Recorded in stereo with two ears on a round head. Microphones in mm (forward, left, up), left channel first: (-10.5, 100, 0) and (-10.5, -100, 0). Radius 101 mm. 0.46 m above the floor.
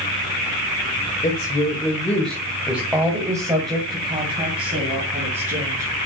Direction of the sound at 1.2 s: 25° left (ahead or behind).